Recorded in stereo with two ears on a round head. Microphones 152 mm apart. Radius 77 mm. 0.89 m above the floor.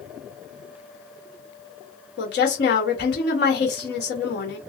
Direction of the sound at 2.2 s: 70° left (ahead or behind).